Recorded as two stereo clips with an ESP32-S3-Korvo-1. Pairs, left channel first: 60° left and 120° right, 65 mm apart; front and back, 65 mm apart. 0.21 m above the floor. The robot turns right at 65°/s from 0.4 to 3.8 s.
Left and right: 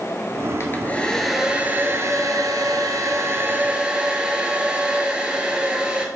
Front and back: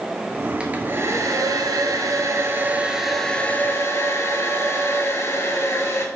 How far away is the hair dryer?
About 0.8 m.